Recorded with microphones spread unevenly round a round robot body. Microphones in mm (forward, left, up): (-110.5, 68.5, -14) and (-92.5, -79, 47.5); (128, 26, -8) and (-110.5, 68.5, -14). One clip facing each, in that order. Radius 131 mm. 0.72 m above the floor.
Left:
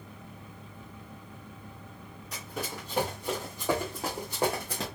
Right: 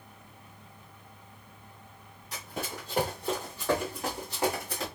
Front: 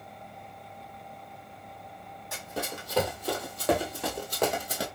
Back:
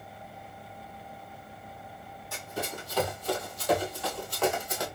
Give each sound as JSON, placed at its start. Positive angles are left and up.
{"t": 2.3, "sound": "running footsteps", "azimuth_deg": -30, "distance_m": 1.5}